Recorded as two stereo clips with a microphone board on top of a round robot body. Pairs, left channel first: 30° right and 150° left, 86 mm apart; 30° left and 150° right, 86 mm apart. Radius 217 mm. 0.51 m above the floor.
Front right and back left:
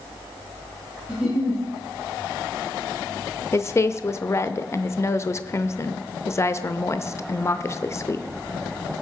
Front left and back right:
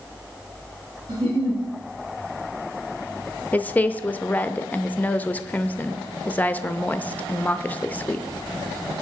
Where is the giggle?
130° right, 5 m.